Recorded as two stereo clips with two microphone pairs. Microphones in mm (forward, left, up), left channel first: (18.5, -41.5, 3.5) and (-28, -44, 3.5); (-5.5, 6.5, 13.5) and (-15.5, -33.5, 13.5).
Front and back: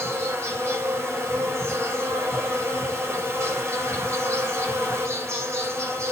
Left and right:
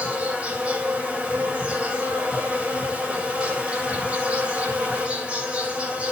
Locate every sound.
0.0 s an insect: 165° right, 3.5 m